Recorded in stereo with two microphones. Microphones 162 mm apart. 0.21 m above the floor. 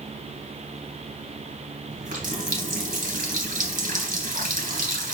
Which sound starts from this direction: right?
A running tap, at 1.9 s.